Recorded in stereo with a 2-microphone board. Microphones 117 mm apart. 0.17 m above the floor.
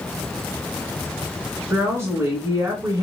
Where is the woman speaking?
25° right (ahead or behind), 1.8 m.